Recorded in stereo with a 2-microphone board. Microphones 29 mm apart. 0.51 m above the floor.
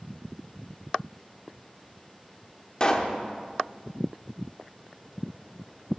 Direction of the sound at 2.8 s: 25° left (ahead or behind).